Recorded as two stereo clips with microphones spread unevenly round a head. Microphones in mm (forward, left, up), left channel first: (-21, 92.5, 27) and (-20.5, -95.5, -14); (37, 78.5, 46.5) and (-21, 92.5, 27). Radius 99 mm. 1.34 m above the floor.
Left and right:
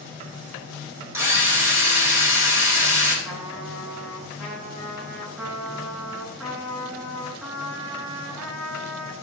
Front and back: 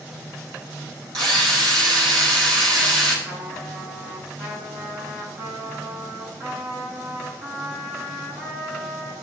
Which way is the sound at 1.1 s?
170° right.